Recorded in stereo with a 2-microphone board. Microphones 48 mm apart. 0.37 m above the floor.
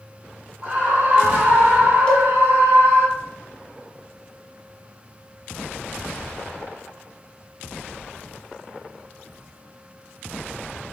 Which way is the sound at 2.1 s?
15° left (ahead or behind).